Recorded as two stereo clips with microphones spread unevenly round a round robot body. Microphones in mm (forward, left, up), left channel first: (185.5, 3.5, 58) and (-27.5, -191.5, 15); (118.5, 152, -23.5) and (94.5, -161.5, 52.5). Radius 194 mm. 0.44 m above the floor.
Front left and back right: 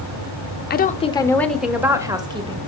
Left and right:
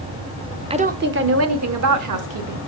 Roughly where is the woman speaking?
Ahead.